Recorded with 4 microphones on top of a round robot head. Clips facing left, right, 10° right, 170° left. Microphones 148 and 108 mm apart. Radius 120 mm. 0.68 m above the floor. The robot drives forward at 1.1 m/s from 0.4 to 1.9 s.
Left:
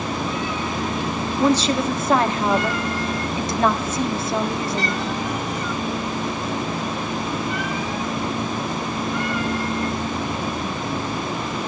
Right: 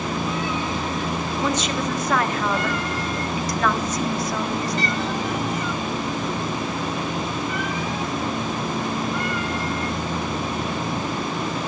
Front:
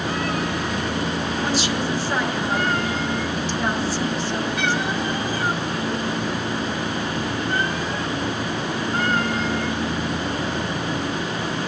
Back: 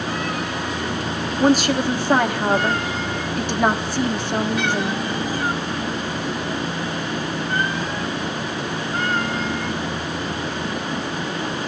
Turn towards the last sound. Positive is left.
turn(degrees=150)